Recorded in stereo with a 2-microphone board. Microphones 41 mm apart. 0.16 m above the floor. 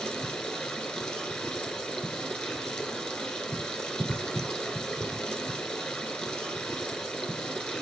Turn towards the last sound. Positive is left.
turn(degrees=15)  # may be behind; listen again after turning